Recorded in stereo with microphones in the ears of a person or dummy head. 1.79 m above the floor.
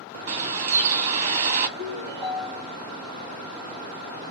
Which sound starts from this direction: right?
A bird, at 0.3 s.